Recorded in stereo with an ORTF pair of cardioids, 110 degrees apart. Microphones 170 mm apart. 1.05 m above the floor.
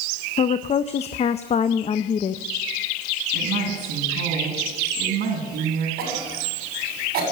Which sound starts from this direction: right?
A woman speaking, at 3.3 s.